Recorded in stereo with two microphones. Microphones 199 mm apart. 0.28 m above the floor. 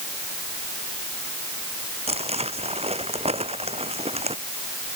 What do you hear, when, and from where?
2.1 s crumpling: 30° right (ahead or behind)